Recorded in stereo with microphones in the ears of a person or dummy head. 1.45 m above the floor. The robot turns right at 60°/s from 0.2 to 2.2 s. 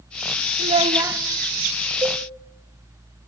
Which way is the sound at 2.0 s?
15° right (ahead or behind).